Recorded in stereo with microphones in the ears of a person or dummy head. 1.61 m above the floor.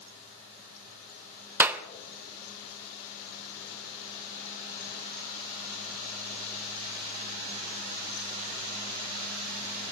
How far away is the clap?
About 0.7 m.